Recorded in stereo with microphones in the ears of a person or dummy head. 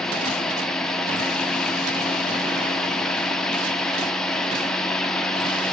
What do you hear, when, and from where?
0.0 s a fan: 5° left (ahead or behind), 0.8 m